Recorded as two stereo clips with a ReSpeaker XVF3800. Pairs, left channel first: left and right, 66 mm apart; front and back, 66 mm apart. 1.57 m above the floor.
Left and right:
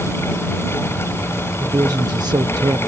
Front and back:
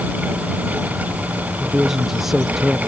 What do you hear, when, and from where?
1.6 s a woman speaking: 95° right